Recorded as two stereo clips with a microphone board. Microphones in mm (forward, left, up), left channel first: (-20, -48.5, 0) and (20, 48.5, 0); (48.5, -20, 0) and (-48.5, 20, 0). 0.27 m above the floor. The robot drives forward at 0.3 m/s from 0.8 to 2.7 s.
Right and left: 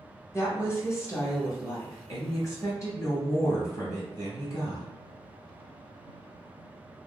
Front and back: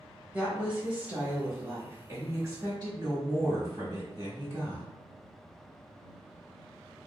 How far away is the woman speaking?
About 1.0 m.